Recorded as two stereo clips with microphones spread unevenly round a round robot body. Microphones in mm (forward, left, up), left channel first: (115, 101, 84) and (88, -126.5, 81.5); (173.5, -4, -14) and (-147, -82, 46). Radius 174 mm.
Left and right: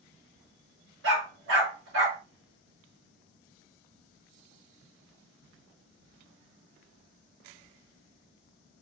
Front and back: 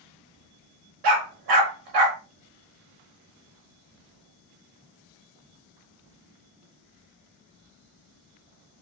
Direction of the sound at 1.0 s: 145° right.